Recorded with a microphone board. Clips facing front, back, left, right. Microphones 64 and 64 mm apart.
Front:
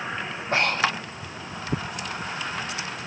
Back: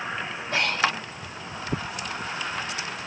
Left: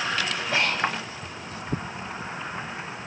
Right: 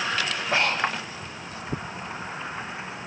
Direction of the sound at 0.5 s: 35° right.